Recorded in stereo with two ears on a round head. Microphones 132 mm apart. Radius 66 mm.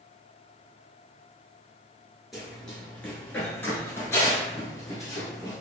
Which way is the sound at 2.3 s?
Centre (ahead or behind).